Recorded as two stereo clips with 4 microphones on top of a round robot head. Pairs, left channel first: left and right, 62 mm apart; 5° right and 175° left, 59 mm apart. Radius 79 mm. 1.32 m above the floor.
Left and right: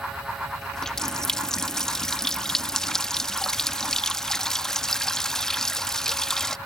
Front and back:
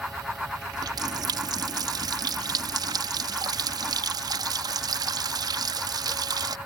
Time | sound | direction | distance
0.7 | a running tap | 170° left | ?